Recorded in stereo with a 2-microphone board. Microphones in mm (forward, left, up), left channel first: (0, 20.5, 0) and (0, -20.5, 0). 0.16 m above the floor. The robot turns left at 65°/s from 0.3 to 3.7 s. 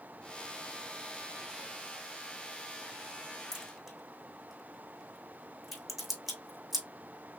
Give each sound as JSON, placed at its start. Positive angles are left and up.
{"t": 3.5, "sound": "a crack", "side_deg": -20, "distance_m": 3.0}